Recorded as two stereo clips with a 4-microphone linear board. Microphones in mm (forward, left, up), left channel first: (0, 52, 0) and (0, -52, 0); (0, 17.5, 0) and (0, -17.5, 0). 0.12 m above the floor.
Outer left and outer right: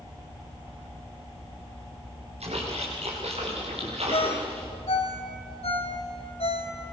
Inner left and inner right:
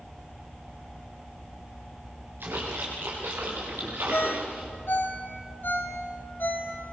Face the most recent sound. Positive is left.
turn(degrees=75)  # may be behind; listen again after turning